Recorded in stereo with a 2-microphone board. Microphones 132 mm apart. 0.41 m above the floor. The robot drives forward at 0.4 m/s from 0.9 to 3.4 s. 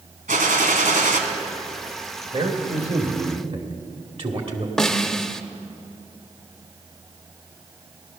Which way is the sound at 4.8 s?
5° left (ahead or behind).